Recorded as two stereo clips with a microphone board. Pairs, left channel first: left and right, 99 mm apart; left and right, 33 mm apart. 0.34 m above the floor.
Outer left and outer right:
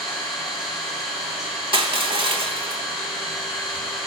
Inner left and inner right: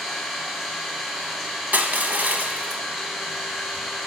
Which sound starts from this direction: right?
Crushing, at 1.7 s.